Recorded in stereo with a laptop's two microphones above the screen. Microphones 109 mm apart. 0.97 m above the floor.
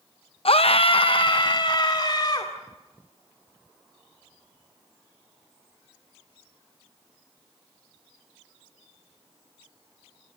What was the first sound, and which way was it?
A scream, 60° left (ahead or behind).